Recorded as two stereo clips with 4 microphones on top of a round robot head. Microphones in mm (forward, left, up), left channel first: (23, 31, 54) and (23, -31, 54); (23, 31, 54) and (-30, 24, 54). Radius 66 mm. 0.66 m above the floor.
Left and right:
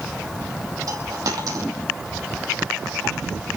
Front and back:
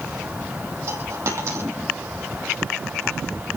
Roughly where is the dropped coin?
Behind right.